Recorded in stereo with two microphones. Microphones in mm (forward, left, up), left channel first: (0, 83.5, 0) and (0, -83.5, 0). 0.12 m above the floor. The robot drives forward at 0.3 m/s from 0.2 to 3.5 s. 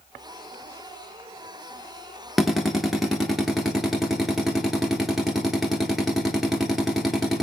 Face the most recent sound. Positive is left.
turn(degrees=0)  # may be behind; listen again after turning